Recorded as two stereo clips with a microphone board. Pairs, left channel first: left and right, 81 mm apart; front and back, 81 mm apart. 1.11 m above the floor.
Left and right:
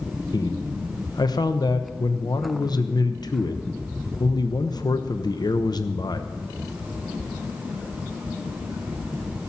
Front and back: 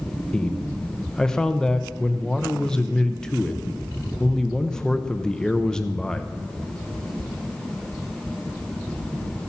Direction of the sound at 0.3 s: 80° left.